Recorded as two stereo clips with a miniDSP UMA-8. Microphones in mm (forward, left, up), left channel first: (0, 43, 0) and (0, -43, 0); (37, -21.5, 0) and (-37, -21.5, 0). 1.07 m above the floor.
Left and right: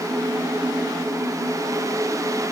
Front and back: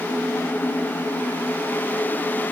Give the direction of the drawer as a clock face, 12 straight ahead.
I don't hear a drawer.